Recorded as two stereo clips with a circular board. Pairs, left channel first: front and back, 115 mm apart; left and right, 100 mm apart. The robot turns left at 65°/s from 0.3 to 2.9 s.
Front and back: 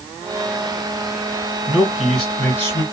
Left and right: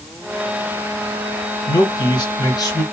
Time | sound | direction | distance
1.7 | a man speaking | 120° left | 2 m